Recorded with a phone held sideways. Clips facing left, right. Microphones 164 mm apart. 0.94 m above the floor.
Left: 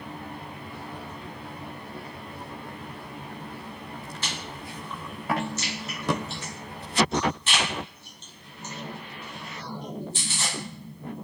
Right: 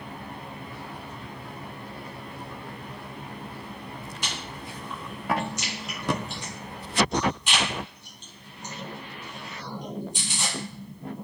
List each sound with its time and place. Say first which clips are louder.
4.2 s chewing: even; 15° right (ahead or behind), 1.5 m